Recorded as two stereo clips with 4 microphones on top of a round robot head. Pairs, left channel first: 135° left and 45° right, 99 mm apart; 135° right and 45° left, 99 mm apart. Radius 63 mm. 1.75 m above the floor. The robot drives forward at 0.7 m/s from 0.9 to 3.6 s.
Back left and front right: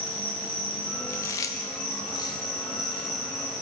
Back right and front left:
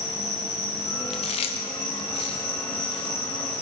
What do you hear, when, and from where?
0.0 s an insect: 150° right, 3.5 m; by 3.6 s 160° right, 5 m
1.1 s chewing: 160° right, 0.6 m; by 3.6 s 175° right, 2 m